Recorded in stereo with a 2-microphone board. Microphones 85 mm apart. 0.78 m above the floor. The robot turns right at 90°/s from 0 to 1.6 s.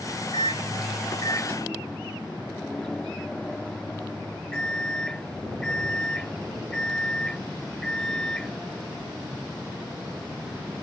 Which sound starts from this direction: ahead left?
A microwave, at 0.3 s.